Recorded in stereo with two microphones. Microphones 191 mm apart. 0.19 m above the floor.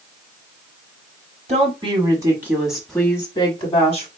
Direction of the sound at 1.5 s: 35° right (ahead or behind).